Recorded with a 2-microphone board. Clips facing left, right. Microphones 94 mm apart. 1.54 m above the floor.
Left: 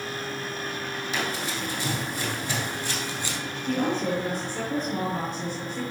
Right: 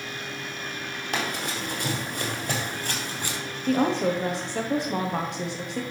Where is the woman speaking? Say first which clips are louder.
Right 3 dB; 80° right, 1.0 m.